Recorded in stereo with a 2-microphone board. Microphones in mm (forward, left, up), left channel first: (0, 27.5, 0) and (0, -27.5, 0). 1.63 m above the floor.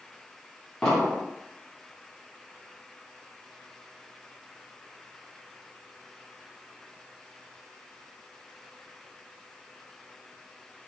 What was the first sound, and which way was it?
An explosion, 10° left (ahead or behind).